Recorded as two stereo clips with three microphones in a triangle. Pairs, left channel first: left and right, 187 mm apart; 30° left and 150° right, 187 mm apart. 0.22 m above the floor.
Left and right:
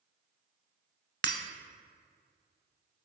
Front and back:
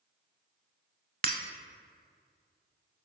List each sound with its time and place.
1.2 s breaking glass: 110° right, 0.6 m